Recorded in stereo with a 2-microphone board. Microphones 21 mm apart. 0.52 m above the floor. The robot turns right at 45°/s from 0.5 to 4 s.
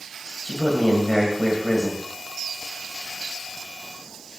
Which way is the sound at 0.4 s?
105° left.